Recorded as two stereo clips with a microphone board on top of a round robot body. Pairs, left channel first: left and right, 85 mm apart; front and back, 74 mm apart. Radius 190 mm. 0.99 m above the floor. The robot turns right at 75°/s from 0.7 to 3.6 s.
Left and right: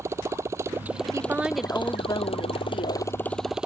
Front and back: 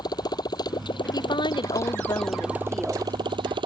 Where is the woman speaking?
40° right; by 3.1 s 115° left.